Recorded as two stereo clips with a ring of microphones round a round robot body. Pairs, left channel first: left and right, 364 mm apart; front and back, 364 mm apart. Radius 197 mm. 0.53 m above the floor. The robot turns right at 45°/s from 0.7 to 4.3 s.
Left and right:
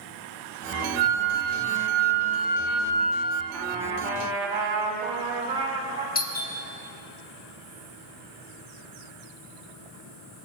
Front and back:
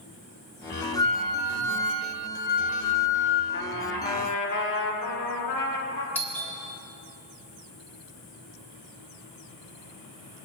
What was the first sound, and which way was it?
A flute, 80° right.